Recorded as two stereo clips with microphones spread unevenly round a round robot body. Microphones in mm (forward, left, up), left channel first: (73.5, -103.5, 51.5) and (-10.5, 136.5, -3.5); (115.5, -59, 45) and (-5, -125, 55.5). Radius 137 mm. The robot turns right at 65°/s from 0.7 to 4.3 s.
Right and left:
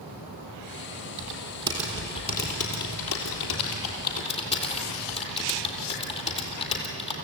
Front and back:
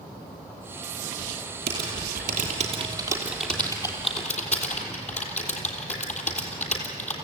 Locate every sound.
1.2 s typing on a keyboard: 155° left, 3.5 m; by 7.1 s 5° right, 3.5 m